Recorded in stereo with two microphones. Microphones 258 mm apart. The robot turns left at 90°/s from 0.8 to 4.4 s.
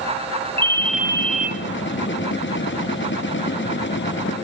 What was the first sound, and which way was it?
A ringtone, 10° left.